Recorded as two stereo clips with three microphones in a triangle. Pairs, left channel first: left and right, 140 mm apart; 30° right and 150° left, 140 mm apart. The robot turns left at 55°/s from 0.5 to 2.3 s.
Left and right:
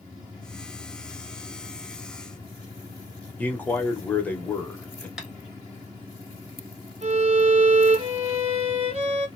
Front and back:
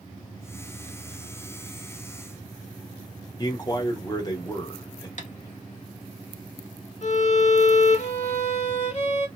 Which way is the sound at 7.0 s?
55° right.